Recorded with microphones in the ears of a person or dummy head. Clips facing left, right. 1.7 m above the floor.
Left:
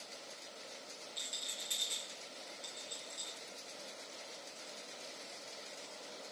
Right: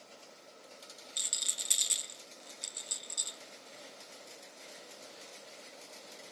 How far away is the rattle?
About 0.6 m.